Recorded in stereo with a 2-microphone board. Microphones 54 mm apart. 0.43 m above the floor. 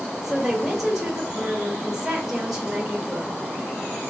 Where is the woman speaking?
10° right (ahead or behind), 1.0 m.